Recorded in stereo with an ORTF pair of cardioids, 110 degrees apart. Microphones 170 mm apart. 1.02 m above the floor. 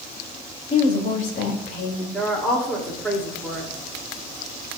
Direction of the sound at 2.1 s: 5° left.